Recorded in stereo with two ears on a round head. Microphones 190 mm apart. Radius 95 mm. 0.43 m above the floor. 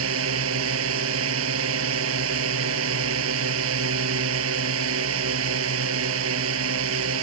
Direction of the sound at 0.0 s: 70° right (ahead or behind).